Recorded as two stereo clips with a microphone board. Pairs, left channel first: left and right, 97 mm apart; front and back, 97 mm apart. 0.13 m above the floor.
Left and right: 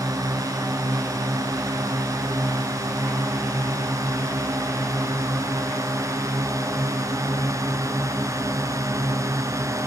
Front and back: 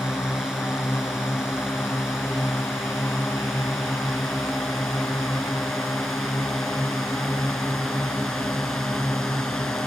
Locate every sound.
0.0 s a drone: 95° right; by 9.9 s 85° right